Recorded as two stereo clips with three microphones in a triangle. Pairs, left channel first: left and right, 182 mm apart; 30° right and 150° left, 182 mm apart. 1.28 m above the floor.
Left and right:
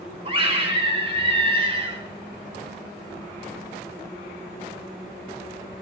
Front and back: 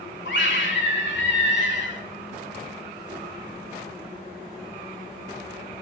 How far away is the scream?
About 3 m.